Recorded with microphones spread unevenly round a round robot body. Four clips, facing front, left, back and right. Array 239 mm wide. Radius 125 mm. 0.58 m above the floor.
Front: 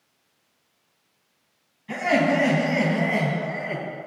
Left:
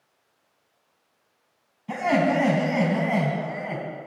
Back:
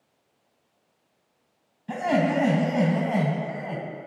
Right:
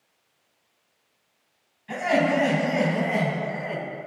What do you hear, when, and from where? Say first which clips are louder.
1.9 s laughter: even, front 2 dB; 140° left, 3 m